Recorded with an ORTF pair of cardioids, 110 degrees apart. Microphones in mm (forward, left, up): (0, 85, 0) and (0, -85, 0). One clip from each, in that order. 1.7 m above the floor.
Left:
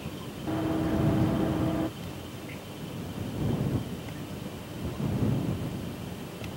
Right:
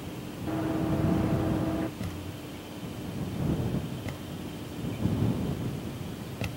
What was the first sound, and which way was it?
Running footsteps, 5° left.